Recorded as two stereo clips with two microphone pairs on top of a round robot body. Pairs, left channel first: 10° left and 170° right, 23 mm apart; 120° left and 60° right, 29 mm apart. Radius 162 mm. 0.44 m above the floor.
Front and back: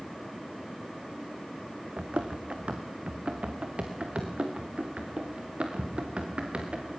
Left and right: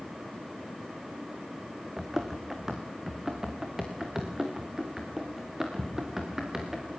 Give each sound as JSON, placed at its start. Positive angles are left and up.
{"t": 2.0, "sound": "running footsteps", "azimuth_deg": -140, "distance_m": 2.5}